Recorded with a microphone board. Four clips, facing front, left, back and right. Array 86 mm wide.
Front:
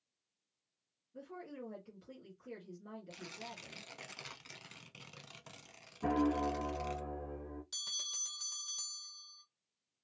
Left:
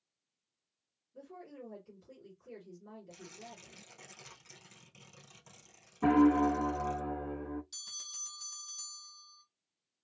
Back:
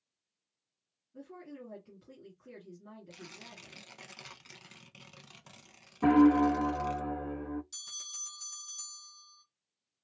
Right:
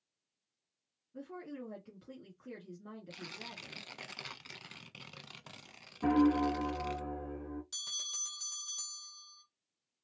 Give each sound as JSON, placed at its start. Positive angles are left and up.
{"t": 1.1, "sound": "a woman speaking", "azimuth_deg": -90, "distance_m": 2.5}
{"t": 3.1, "sound": "tearing paper", "azimuth_deg": -85, "distance_m": 0.7}
{"t": 6.0, "sound": "a piano", "azimuth_deg": 155, "distance_m": 0.5}
{"t": 7.7, "sound": "a bell", "azimuth_deg": -45, "distance_m": 1.6}